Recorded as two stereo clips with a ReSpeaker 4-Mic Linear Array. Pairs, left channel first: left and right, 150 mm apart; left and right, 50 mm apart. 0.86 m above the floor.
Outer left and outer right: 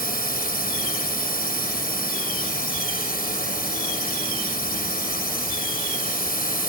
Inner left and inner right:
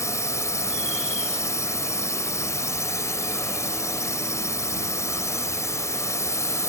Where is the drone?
80° left.